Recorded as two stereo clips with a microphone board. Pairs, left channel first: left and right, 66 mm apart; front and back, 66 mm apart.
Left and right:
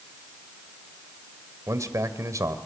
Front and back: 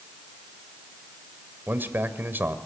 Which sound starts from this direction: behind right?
A man speaking, at 1.7 s.